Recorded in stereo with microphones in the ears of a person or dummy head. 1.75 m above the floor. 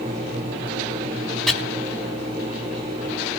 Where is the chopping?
5° left (ahead or behind), 4 m.